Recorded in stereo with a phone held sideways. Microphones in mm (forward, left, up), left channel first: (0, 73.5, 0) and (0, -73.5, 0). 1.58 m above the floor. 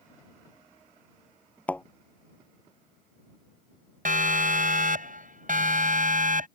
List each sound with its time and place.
1.7 s a thud: 10° left (ahead or behind)
4.0 s a siren: 65° right (ahead or behind)